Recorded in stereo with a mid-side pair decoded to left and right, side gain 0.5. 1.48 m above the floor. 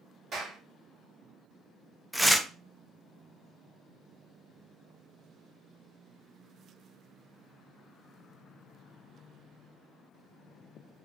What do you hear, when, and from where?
0.3 s a clap: 45° right, 1.8 m
2.1 s tearing paper: straight ahead, 0.6 m